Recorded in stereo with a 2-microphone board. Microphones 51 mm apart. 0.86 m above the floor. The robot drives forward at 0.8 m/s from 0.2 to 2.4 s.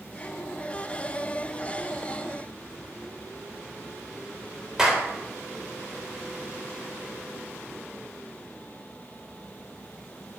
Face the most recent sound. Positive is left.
turn(degrees=-10)  # may be behind; listen again after turning